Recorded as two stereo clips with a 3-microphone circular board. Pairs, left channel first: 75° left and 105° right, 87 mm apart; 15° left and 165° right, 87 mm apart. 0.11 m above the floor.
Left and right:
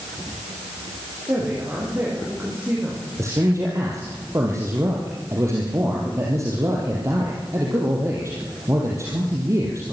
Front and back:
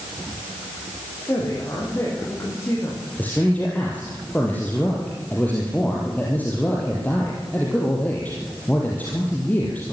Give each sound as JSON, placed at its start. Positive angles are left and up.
{"t": 1.3, "sound": "a woman speaking", "azimuth_deg": -45, "distance_m": 7.0}
{"t": 3.2, "sound": "a man speaking", "azimuth_deg": -55, "distance_m": 3.5}